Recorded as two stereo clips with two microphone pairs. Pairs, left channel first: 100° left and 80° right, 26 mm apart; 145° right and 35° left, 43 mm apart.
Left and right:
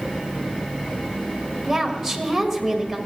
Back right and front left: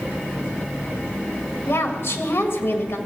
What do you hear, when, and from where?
1.7 s a woman speaking: 165° right, 1.6 m